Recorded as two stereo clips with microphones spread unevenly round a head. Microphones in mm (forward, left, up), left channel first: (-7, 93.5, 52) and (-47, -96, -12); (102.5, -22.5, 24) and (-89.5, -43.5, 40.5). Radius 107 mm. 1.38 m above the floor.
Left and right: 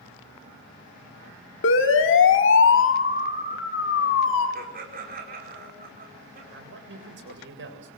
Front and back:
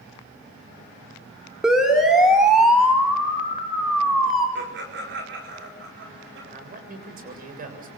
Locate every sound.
1.6 s a siren: 100° left, 3 m
4.5 s laughter: 145° right, 4.5 m
6.5 s a man speaking: 130° right, 7.5 m